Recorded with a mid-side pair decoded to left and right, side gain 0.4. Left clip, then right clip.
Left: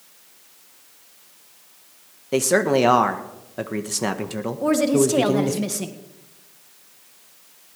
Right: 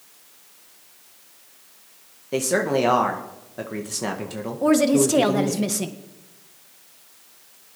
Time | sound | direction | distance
2.3 | a man speaking | 35° left | 1.4 m
4.6 | a woman speaking | 15° right | 1.8 m